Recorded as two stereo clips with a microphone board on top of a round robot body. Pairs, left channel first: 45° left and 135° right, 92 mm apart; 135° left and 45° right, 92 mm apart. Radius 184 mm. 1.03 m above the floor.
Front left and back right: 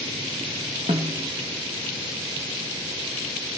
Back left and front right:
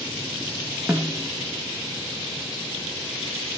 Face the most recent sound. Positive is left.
turn(degrees=-115)